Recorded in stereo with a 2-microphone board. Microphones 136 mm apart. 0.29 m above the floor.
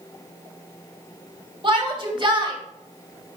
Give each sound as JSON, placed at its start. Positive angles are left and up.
{"t": 1.6, "sound": "a shout", "side_deg": -40, "distance_m": 1.5}